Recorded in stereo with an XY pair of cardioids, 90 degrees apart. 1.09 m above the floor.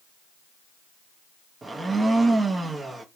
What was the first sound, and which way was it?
A blender, 30° right.